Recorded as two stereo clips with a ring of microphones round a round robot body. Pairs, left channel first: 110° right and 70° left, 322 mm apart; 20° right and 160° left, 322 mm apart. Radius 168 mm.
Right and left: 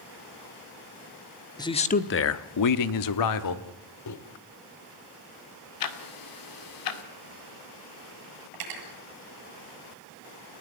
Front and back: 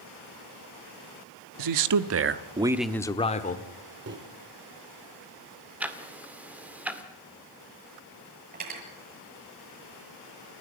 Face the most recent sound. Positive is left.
turn(degrees=95)